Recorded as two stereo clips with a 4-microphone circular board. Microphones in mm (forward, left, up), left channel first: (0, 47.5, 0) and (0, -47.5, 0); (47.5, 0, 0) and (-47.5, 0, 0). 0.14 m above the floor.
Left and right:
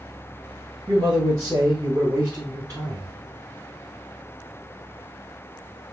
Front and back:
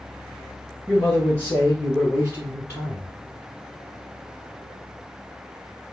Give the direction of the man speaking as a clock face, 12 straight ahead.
2 o'clock.